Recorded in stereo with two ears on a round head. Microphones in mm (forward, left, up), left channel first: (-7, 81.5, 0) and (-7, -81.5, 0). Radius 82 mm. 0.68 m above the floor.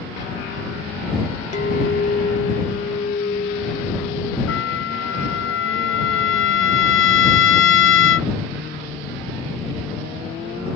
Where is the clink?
40° left (ahead or behind).